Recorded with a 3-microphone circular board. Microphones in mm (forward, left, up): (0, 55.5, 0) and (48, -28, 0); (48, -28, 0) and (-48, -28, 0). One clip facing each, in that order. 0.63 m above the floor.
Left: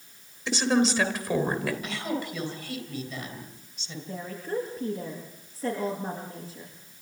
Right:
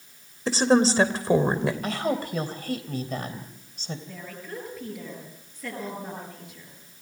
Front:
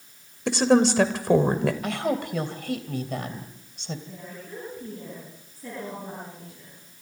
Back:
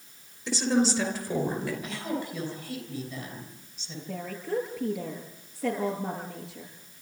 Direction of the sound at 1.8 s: 20° right.